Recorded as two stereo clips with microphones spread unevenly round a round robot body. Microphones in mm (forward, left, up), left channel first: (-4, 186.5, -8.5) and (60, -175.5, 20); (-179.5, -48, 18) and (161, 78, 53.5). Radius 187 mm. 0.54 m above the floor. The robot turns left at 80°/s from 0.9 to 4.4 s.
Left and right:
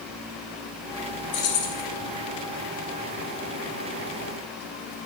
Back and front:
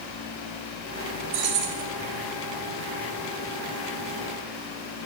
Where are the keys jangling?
80° left, 1.4 m; by 1.8 s 40° left, 1.4 m.